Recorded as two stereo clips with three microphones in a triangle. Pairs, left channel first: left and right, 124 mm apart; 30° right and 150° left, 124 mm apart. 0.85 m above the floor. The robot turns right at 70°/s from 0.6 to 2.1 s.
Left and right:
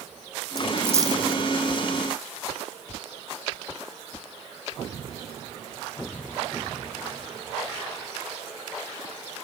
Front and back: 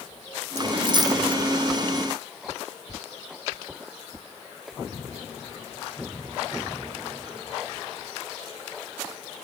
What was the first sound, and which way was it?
A dropped coin, straight behind.